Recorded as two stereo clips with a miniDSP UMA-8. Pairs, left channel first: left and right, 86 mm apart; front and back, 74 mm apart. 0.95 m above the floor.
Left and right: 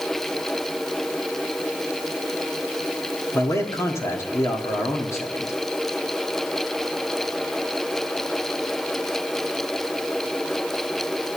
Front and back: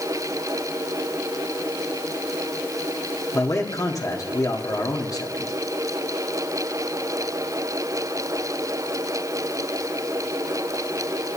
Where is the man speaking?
35° left, 2.0 m.